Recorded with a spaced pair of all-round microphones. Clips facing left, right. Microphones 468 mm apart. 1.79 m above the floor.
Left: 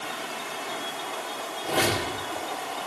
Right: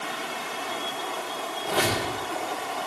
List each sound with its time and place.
1.6 s a squeak: 45° left (ahead or behind), 4 m